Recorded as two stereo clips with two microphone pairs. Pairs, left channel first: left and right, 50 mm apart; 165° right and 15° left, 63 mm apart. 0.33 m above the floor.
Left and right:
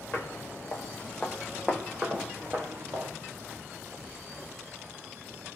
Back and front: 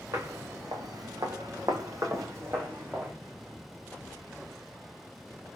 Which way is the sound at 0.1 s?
45° left.